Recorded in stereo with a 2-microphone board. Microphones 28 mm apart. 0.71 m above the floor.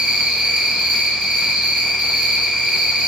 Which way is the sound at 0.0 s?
60° right (ahead or behind).